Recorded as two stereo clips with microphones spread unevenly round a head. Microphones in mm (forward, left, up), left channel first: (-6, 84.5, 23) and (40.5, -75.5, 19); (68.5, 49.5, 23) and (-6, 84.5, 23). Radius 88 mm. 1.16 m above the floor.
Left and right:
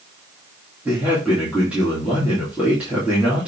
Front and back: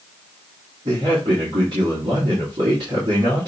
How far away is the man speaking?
About 2.5 m.